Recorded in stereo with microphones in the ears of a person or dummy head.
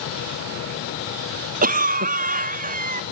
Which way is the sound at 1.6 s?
45° right (ahead or behind).